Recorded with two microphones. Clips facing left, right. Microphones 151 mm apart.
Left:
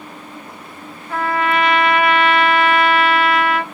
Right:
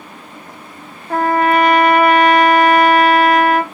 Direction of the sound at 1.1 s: 45° right (ahead or behind).